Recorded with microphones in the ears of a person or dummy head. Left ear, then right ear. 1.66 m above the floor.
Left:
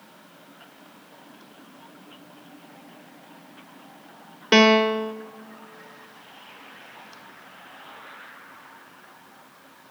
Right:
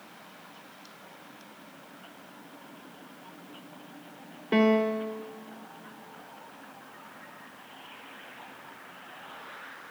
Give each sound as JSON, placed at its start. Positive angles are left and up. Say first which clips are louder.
{"t": 4.5, "sound": "a piano", "louder": "left 8 dB", "side_deg": 60, "distance_m": 0.6}